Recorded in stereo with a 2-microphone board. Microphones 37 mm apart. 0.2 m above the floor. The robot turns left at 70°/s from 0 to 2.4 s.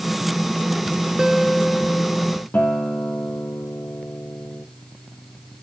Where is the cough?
No cough in this recording.